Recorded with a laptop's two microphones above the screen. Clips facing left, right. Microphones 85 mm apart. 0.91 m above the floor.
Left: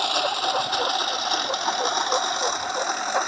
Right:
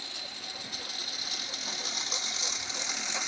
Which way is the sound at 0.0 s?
80° left.